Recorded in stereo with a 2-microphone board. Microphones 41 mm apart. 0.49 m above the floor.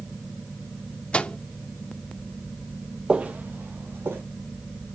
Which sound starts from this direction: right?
Footsteps, at 3.1 s.